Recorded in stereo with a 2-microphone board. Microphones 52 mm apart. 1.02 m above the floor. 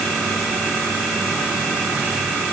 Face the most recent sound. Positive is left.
No sound to turn to.